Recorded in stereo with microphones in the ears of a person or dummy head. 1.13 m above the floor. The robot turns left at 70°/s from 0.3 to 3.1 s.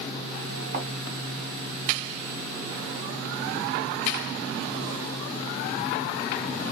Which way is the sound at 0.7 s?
40° right (ahead or behind).